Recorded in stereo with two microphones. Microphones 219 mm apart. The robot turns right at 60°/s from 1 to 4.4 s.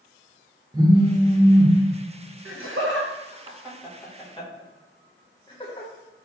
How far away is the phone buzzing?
About 0.6 m.